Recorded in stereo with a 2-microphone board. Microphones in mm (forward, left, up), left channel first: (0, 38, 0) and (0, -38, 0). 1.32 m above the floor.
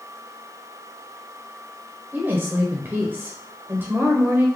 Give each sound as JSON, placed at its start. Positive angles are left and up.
{"t": 2.1, "sound": "a woman speaking", "side_deg": -25, "distance_m": 0.8}